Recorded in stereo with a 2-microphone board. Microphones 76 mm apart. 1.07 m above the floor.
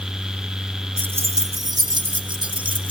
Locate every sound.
1.0 s keys jangling: 20° right (ahead or behind), 0.7 m; by 2.9 s 85° right, 1.7 m